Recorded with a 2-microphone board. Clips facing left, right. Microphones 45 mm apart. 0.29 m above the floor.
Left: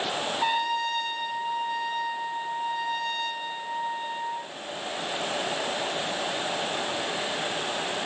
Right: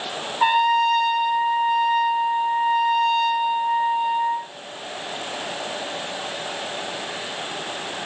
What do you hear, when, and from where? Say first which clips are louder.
0.4 s a trumpet: right 11 dB; 45° right (ahead or behind), 5.5 m